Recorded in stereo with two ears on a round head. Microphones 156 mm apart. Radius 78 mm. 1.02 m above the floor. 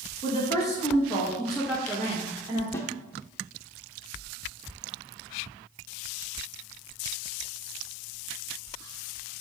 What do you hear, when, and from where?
0.2 s a woman speaking: 30° left (ahead or behind), 1.4 m; by 2.6 s 25° right (ahead or behind), 1.4 m
2.7 s a snare drum: 15° left (ahead or behind), 0.7 m